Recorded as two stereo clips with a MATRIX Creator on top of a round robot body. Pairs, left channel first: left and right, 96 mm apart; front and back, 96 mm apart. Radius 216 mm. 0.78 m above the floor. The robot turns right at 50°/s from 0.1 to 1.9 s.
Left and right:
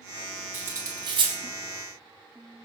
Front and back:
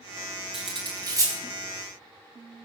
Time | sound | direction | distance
0.5 | cutlery clinking | 160° right | 3 m